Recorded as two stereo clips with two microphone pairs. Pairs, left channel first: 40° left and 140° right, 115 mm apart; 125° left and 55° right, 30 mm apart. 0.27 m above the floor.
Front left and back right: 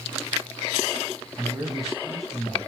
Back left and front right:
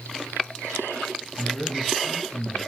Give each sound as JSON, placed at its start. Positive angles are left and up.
{"t": 1.4, "sound": "a man speaking", "azimuth_deg": 135, "distance_m": 1.6}